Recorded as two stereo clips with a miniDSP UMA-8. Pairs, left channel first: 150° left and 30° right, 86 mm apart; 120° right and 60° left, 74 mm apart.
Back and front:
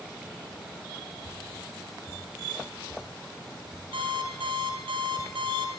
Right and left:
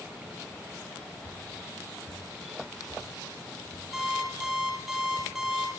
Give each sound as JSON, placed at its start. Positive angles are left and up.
{"t": 1.2, "sound": "dripping", "azimuth_deg": -150, "distance_m": 8.0}
{"t": 3.9, "sound": "an alarm clock", "azimuth_deg": -25, "distance_m": 4.0}